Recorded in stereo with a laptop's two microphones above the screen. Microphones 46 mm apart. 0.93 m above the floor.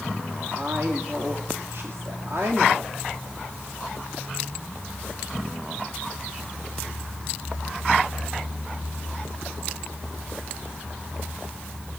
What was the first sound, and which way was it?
A woman speaking, 65° right (ahead or behind).